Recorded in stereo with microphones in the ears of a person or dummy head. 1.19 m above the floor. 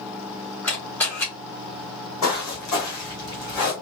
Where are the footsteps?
15° left (ahead or behind), 1.8 m; by 3.7 s 20° left (ahead or behind), 3 m.